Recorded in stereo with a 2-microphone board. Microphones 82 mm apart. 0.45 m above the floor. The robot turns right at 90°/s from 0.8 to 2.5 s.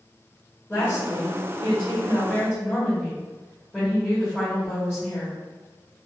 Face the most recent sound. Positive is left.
turn(degrees=165)